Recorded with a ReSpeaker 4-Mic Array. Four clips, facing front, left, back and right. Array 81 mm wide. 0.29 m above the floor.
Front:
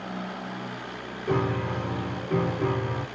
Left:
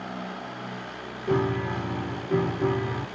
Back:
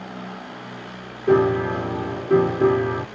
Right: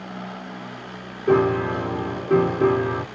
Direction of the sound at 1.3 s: 135° right.